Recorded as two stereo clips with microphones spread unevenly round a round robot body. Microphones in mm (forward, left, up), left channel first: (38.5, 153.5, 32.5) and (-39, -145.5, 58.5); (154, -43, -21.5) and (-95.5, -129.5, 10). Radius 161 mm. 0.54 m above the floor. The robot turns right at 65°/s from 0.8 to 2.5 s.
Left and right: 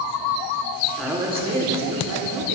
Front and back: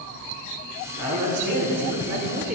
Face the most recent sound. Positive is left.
turn(degrees=-105)